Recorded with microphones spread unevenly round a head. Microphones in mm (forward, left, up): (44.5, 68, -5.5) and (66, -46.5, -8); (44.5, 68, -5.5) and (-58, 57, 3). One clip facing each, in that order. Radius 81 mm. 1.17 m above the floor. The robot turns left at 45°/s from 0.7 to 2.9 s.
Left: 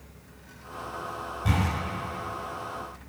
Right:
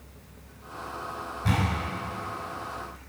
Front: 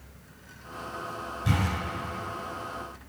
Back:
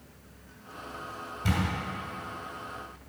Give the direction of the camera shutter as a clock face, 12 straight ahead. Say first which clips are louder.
Right 1 dB, front 1 dB; 6 o'clock.